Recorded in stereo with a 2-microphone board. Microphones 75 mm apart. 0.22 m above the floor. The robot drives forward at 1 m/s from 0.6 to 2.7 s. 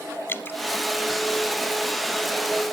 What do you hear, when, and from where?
0.3 s dripping: 30° left (ahead or behind), 0.8 m